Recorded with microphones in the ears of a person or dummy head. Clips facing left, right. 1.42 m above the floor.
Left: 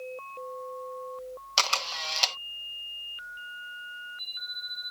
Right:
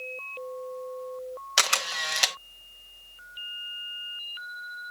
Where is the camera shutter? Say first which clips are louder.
Even; 20° right (ahead or behind).